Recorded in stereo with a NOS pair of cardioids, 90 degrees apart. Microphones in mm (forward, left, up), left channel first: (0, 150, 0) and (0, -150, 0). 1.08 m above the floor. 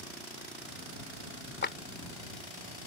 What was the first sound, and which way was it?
A clap, 35° left.